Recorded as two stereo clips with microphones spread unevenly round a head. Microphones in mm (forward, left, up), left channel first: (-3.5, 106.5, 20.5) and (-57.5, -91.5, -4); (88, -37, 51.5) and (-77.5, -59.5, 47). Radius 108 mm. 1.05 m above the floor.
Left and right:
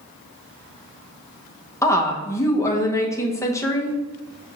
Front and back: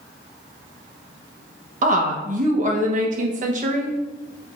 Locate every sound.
1.8 s a woman speaking: 155° left, 1.2 m